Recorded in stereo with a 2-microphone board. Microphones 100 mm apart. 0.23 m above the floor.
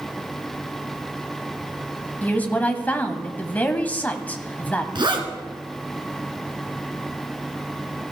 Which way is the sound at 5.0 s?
55° right (ahead or behind).